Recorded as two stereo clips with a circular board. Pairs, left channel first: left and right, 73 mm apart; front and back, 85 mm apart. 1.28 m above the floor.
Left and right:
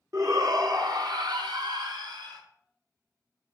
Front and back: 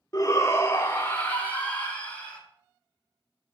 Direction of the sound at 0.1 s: 50° right.